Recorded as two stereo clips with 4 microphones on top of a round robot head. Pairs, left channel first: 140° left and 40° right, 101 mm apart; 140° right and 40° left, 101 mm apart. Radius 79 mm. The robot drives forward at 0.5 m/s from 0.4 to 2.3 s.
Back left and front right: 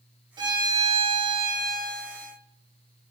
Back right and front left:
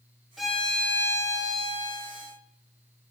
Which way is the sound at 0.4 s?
50° right.